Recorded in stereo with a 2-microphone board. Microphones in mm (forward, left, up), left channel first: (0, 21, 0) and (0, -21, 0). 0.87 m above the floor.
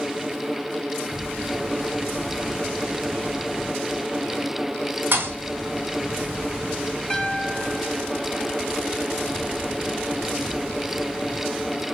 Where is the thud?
45° right (ahead or behind), 3.5 m.